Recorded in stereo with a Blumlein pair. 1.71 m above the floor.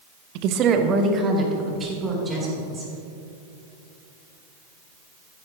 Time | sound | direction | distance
0.3 | a woman speaking | 45° right | 0.7 m